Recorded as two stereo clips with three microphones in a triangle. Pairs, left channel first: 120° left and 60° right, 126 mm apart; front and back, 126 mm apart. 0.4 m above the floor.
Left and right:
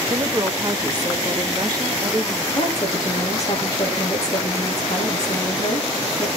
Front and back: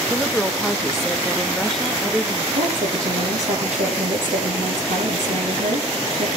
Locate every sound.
0.1 s a woman speaking: 85° right, 1.3 m
2.5 s a woman speaking: straight behind, 7.5 m